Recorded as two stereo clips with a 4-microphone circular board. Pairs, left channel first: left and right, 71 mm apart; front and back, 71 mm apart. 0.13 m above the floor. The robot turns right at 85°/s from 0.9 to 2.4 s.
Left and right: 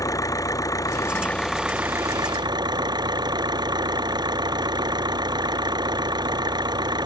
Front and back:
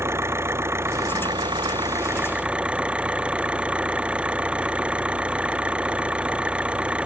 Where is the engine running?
130° left; by 7.1 s 105° right.